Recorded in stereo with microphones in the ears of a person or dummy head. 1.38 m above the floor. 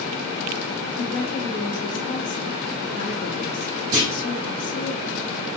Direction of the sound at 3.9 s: 60° right (ahead or behind).